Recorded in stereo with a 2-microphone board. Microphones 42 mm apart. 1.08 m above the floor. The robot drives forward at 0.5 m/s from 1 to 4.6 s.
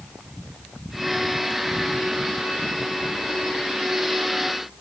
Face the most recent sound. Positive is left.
No sound to turn to.